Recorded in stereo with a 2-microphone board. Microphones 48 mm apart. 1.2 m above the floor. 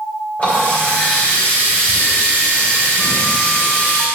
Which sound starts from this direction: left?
A running tap, at 0.4 s.